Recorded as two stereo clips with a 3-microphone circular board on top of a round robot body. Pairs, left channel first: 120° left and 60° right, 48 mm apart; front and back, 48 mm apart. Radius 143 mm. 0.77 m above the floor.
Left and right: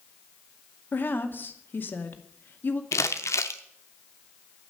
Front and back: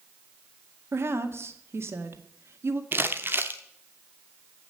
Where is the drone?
No drone in this recording.